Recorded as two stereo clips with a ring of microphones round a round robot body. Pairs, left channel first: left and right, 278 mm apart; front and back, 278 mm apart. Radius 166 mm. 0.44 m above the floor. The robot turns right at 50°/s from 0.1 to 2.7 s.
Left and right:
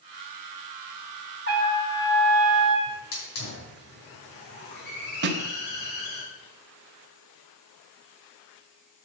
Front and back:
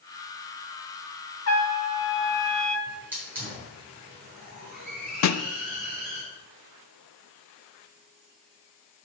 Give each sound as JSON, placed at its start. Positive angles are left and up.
{"t": 1.5, "sound": "a trumpet", "azimuth_deg": -35, "distance_m": 1.6}
{"t": 2.9, "sound": "a hiss", "azimuth_deg": 95, "distance_m": 5.0}
{"t": 5.2, "sound": "a snare drum", "azimuth_deg": -30, "distance_m": 0.6}